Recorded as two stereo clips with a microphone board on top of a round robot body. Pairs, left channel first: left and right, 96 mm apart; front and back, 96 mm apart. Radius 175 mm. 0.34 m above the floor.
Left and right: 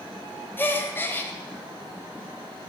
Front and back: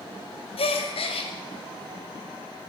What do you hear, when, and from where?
0.6 s a gasp: 20° left, 0.8 m